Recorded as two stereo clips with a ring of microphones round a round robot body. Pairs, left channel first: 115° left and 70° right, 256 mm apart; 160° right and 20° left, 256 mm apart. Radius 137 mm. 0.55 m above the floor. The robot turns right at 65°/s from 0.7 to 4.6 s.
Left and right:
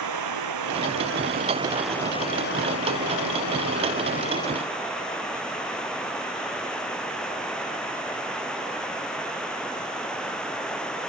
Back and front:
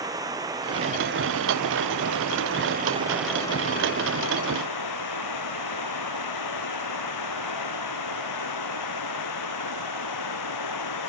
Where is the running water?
55° right; by 11.1 s 160° right.